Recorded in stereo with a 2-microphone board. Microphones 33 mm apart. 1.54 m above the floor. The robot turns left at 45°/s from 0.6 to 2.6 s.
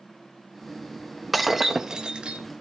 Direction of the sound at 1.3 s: Straight ahead.